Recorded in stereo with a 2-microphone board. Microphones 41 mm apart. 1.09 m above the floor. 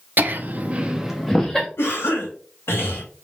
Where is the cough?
75° left (ahead or behind), 1.6 m.